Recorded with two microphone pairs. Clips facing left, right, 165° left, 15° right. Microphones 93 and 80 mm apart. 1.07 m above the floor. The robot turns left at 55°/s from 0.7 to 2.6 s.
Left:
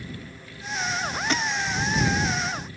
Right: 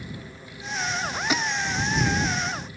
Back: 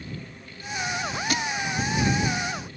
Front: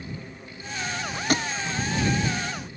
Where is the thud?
15° right; by 1.5 s 25° right.